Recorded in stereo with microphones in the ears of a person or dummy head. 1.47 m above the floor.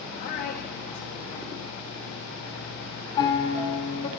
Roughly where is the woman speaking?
Left.